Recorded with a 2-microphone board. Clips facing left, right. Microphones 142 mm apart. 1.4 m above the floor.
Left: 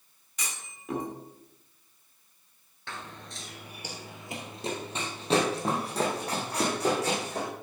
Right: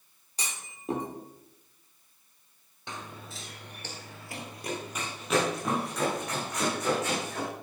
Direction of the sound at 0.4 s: 30° right (ahead or behind).